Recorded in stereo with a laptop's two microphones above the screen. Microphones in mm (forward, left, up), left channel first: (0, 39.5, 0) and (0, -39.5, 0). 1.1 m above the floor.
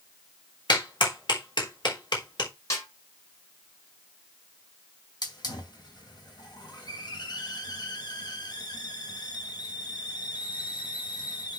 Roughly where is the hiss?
Left.